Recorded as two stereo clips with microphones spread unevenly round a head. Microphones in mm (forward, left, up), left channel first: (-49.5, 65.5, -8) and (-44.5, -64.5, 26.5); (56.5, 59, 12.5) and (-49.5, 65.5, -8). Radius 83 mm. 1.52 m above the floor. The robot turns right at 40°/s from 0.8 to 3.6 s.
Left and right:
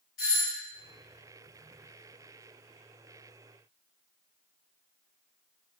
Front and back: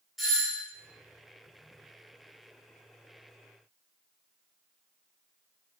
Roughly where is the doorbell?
Left.